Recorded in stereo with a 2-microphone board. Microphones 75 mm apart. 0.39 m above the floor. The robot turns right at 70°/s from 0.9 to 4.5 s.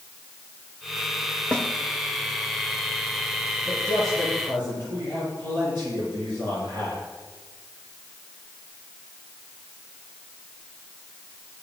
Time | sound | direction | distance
1.5 | a snare drum | 10° left (ahead or behind) | 1.1 m
3.6 | a man speaking | 155° right | 8 m